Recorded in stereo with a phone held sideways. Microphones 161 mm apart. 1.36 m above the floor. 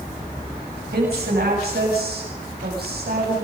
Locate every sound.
0.9 s a woman speaking: 85° right, 7.5 m